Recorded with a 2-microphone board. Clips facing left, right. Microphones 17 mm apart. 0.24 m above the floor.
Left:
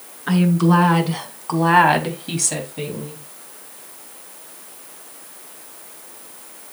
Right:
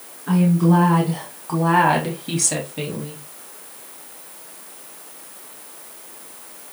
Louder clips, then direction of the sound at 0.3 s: Left 1 dB; 65° left (ahead or behind).